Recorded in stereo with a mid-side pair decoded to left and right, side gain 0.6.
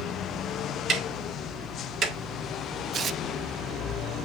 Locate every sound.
0.9 s ticking: 40° right, 2.5 m
2.9 s tearing paper: 40° right, 0.6 m